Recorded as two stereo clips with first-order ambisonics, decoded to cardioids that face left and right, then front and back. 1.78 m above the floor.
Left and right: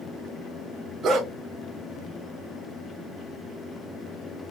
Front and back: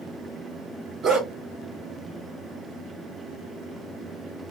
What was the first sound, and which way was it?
A dog barking, 130° right.